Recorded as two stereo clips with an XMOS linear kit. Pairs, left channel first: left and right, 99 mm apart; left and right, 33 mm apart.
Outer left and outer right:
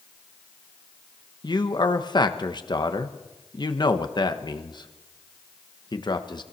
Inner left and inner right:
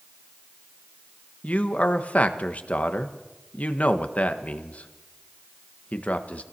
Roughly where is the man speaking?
Left.